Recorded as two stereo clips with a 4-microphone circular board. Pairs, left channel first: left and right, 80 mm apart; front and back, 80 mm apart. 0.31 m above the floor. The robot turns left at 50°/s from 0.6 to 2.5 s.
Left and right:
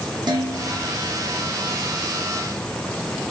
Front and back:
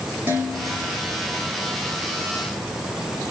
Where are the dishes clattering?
115° right, 3.5 m; by 1.0 s 135° right, 3.5 m.